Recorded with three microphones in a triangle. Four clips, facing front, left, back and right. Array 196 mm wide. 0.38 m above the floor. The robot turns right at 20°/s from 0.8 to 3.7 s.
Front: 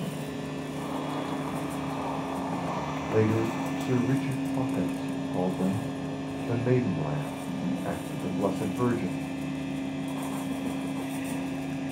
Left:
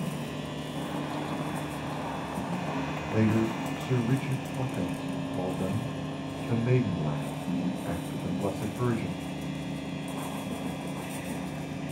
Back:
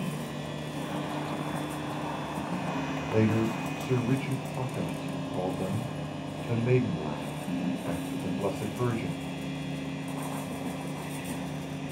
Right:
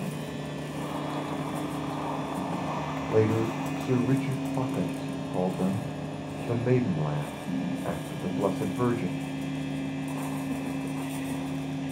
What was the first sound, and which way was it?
A man speaking, 85° right.